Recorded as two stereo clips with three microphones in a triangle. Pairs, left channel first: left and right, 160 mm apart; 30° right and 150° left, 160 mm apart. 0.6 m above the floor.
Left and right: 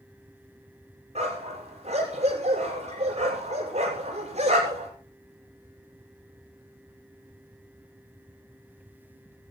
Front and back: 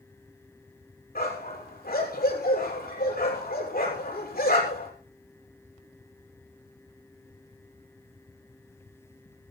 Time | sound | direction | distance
1.1 | a dog barking | 45° right | 7 m